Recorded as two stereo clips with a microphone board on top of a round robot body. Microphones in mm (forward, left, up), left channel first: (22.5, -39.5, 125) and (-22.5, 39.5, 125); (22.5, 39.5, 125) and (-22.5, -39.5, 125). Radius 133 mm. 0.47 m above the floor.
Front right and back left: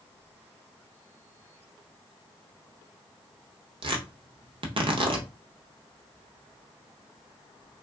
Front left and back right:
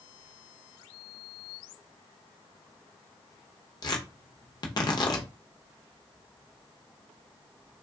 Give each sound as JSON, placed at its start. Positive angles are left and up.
{"t": 3.8, "sound": "tearing paper", "azimuth_deg": 100, "distance_m": 0.8}